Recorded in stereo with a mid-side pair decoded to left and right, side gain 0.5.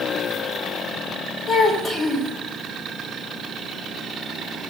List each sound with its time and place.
1.5 s a child speaking: 55° left, 3.5 m